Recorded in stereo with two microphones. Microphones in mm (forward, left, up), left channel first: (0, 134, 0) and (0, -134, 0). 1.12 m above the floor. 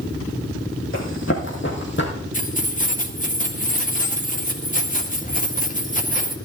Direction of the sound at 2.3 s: 30° left (ahead or behind).